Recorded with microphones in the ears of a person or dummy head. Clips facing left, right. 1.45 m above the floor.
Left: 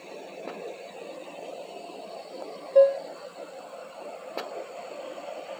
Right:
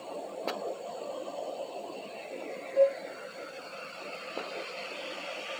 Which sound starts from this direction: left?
Dishes clattering, at 2.8 s.